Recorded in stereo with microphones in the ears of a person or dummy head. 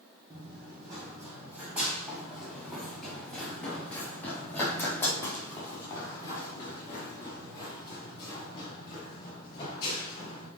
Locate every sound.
0.3 s running footsteps: 25° right (ahead or behind), 2.5 m; by 10.5 s 30° left (ahead or behind), 6.5 m